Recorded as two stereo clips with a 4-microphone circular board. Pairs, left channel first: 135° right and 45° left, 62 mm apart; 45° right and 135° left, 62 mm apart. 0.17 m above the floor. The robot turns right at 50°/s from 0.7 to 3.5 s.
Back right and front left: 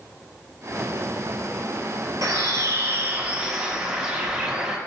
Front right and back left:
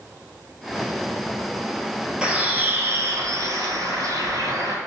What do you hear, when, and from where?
2.2 s a bird: 60° left, 0.8 m; by 4.8 s 125° left, 0.8 m